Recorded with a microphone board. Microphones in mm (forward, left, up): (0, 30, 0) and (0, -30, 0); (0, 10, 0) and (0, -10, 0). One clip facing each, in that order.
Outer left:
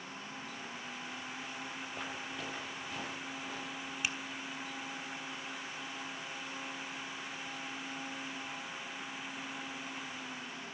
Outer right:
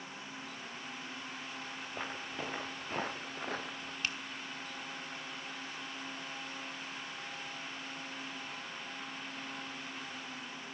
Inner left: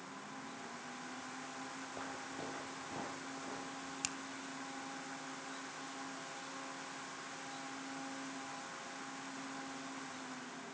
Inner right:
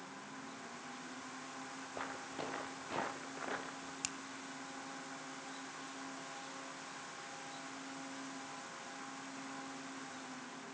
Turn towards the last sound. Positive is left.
turn(degrees=10)  # may be behind; listen again after turning